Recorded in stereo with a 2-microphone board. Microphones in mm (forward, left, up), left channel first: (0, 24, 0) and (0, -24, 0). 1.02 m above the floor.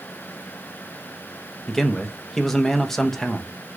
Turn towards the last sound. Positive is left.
turn(degrees=5)  # may be behind; listen again after turning